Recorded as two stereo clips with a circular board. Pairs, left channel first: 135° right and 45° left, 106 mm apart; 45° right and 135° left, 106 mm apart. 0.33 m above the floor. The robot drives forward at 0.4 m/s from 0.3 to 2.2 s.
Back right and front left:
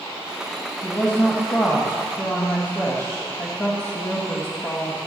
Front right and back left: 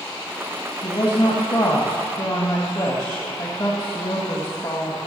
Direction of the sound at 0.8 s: 70° right.